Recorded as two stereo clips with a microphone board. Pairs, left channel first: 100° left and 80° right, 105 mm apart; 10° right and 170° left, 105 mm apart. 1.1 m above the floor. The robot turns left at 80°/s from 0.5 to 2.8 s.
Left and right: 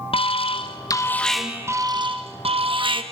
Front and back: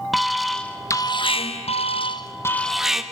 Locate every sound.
0.1 s an alarm: 80° left, 1.0 m; by 3.0 s 105° right, 1.0 m